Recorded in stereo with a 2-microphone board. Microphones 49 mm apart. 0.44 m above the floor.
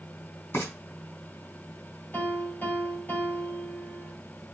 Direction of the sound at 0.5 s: 50° left (ahead or behind).